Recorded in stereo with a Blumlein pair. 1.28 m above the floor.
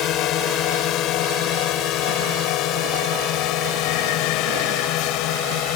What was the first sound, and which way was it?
A drone, 35° left.